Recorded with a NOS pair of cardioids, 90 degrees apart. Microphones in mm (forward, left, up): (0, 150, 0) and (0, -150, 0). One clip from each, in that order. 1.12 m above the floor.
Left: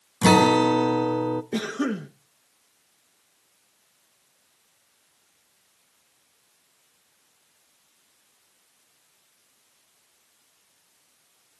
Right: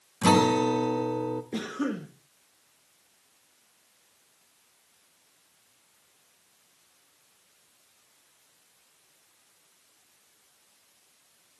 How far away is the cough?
About 1.2 m.